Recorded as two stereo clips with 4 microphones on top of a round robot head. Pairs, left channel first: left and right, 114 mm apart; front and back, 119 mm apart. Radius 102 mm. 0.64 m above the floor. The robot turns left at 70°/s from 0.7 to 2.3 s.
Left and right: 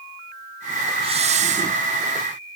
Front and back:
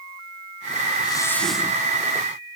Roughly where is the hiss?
Ahead right.